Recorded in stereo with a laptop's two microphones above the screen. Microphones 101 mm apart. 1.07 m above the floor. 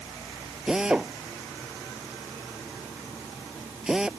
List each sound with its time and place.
0.7 s a drill: 10° right (ahead or behind)